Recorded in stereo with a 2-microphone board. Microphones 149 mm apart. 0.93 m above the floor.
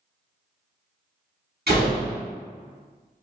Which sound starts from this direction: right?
A door slam, at 1.7 s.